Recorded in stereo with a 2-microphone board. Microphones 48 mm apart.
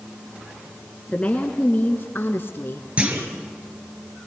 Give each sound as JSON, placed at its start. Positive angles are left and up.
{"t": 1.1, "sound": "a woman speaking", "side_deg": 25, "distance_m": 1.6}
{"t": 3.0, "sound": "a clunk", "side_deg": -25, "distance_m": 3.0}